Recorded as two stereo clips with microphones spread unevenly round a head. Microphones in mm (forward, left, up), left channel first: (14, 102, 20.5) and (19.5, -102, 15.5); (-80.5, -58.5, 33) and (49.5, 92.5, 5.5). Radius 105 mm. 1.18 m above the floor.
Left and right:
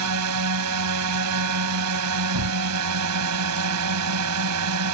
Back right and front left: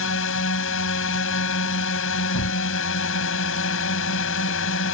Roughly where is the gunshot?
Right.